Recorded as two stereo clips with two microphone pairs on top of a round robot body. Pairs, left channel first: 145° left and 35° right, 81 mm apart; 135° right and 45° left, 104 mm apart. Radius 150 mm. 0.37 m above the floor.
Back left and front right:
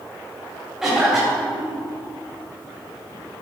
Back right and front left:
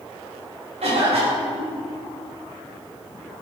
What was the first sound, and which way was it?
A cough, 45° left.